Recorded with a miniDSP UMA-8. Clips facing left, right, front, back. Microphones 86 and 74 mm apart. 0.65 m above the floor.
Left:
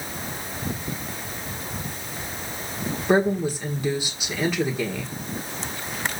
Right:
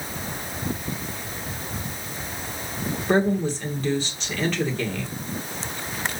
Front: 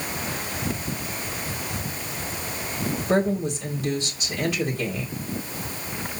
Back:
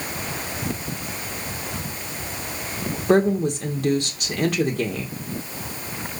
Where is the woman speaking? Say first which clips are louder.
Left 1 dB, back 5 dB; 170° left, 2.0 m.